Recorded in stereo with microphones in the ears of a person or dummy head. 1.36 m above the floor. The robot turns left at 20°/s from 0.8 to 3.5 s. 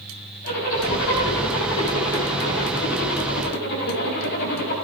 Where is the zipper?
115° left, 6.5 m; by 4.7 s 60° left, 6.5 m.